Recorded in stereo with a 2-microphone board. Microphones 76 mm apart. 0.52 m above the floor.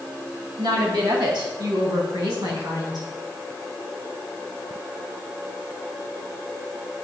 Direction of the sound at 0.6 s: 70° right (ahead or behind).